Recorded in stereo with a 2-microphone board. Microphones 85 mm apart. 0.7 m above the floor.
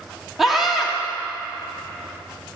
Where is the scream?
5° right (ahead or behind), 1.8 m.